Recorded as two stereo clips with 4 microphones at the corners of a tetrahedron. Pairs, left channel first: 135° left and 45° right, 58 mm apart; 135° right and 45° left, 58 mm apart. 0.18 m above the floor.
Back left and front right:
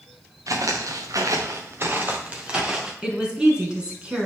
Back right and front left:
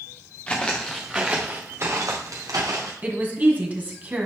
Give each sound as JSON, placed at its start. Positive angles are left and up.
{"t": 0.5, "sound": "footsteps", "azimuth_deg": -65, "distance_m": 1.8}
{"t": 3.0, "sound": "a woman speaking", "azimuth_deg": 15, "distance_m": 1.9}